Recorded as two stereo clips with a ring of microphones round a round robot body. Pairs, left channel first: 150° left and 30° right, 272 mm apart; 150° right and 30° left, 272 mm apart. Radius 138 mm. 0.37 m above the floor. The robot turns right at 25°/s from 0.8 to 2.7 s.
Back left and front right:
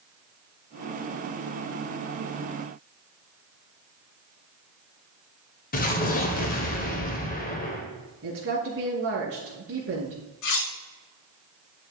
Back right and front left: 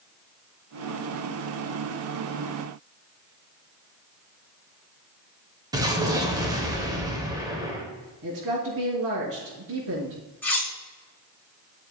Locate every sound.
5.7 s an explosion: 100° left, 1.7 m
8.2 s a woman speaking: 15° left, 4 m
10.4 s cutlery clinking: 125° left, 3 m